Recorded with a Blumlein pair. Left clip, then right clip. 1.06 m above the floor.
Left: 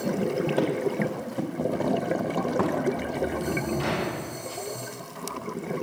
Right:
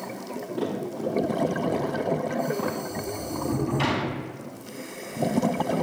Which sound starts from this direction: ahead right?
A sliding door, at 2.9 s.